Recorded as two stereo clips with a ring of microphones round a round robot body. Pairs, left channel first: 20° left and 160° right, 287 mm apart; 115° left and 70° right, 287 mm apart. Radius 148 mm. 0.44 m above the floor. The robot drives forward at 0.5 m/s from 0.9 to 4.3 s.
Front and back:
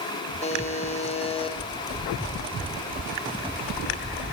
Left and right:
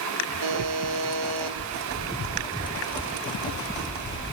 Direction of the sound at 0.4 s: 45° right.